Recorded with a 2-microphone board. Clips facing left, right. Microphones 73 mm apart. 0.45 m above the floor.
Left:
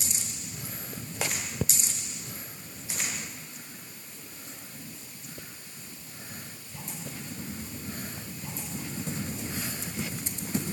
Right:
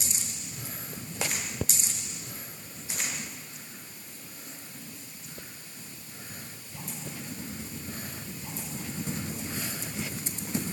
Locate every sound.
Only background noise.